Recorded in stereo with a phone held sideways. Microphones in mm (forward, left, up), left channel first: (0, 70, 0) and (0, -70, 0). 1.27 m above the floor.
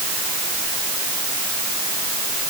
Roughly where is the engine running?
No engine running in this recording.